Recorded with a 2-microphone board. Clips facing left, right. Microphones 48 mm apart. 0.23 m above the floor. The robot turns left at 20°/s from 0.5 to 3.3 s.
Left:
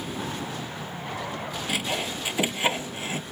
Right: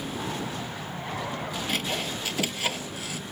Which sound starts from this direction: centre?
Sawing, at 1.7 s.